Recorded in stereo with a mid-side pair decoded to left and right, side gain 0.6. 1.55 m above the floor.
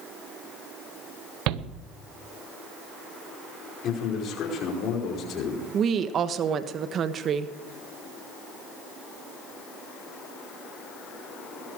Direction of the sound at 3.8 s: 55° left.